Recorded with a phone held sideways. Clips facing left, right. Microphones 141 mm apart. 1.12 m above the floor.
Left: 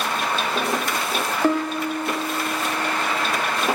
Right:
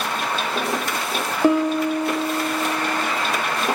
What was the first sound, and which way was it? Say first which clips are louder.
A piano: right 5 dB; 15° right (ahead or behind).